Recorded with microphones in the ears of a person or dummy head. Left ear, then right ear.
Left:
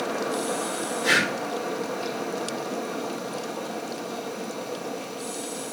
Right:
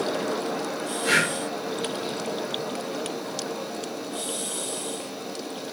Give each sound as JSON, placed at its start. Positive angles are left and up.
{"t": 0.0, "sound": "a fan", "side_deg": 45, "distance_m": 2.5}
{"t": 1.0, "sound": "breathing", "side_deg": 30, "distance_m": 5.5}